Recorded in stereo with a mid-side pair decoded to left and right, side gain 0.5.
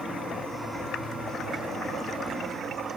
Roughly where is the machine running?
Ahead.